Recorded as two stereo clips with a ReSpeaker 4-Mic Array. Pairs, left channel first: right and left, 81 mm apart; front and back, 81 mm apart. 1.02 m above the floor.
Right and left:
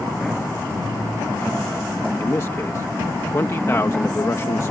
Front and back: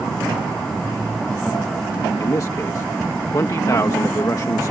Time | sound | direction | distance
2.2 | a man speaking | 40° right | ?